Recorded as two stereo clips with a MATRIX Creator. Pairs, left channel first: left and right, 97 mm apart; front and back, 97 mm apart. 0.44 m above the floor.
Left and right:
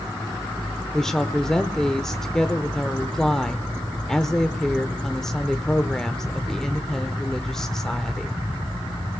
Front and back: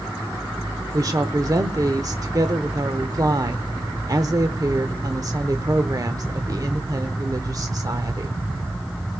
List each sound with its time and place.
0.9 s a woman speaking: 170° left, 0.9 m